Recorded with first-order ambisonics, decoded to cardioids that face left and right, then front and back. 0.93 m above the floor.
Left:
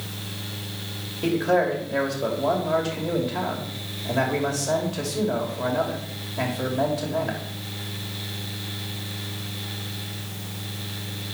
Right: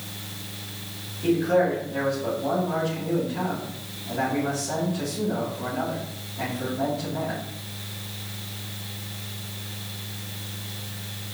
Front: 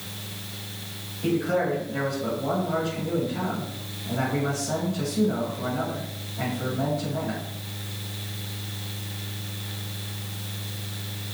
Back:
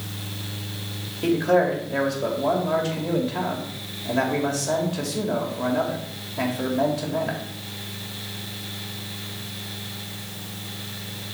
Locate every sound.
1.2 s a man speaking: 135° left, 2.5 m